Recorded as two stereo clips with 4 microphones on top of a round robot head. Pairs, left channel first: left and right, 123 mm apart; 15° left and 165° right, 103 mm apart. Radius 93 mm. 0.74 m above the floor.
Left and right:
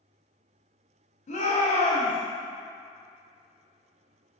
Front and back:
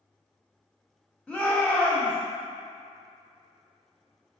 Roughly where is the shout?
Left.